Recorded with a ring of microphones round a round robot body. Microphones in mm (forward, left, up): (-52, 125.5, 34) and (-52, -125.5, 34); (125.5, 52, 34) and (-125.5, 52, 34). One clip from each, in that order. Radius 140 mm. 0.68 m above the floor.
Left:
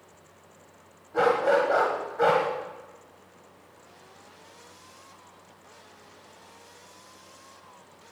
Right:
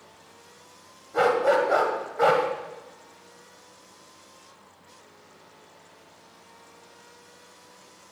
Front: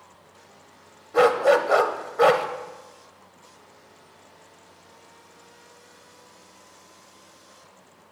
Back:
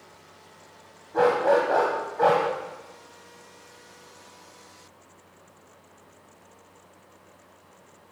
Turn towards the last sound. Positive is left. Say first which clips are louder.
# right 1 dB, front 2 dB
turn(degrees=-15)